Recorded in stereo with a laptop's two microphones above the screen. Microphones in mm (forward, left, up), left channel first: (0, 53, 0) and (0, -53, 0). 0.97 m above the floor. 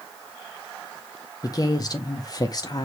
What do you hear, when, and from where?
1.4 s a woman speaking: 35° left (ahead or behind), 0.6 m